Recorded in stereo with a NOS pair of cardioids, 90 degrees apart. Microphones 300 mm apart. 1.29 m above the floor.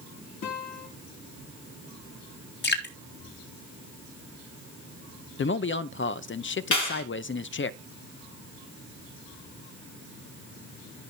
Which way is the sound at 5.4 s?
40° left.